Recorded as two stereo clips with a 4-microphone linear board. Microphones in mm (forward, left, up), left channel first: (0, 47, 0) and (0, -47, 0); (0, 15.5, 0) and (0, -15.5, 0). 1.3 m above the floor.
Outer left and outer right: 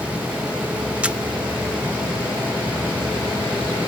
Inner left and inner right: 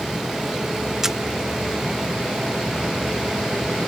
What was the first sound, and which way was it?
A camera shutter, 15° right (ahead or behind).